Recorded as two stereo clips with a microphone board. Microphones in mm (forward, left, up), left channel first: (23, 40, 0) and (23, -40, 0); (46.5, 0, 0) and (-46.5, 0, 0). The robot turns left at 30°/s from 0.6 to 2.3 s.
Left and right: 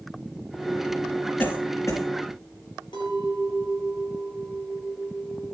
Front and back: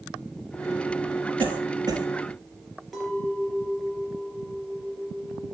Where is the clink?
90° left, 3.5 m.